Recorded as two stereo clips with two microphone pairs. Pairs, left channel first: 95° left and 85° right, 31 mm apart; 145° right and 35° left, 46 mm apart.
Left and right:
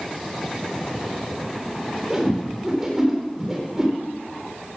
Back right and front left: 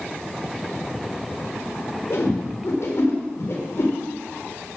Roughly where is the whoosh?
Behind.